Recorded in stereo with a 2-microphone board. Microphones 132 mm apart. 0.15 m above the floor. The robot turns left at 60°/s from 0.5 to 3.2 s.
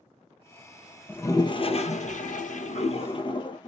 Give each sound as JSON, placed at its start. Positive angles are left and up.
{"t": 1.1, "sound": "a toilet flushing", "azimuth_deg": 165, "distance_m": 0.6}